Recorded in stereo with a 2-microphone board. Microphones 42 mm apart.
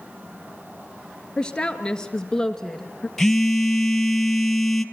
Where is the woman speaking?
20° left (ahead or behind), 2 m; by 3.1 s 10° left (ahead or behind), 1.3 m.